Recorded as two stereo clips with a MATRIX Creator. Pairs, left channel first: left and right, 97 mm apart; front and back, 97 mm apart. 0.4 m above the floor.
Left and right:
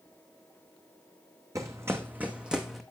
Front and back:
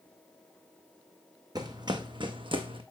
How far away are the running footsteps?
About 1.0 m.